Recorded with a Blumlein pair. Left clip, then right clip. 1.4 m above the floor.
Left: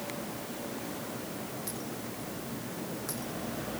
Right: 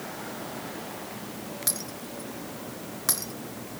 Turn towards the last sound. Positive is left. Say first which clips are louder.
# right 4 dB
turn(degrees=-55)